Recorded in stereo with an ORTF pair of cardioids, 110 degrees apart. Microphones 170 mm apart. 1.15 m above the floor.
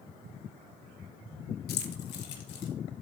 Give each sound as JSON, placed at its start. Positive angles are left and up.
{"t": 1.7, "sound": "keys jangling", "azimuth_deg": 60, "distance_m": 0.8}